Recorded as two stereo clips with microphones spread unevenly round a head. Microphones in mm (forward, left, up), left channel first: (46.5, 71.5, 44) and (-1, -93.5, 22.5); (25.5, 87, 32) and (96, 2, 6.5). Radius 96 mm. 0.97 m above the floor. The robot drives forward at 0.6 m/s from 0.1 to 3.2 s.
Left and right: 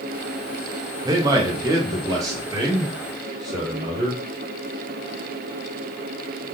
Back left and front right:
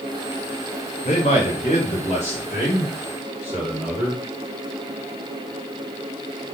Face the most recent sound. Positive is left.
turn(degrees=180)